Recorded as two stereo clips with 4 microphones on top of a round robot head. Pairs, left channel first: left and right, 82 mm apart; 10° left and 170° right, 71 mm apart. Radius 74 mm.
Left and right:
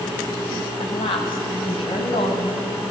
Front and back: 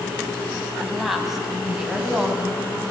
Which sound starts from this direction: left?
A woman speaking, at 0.8 s.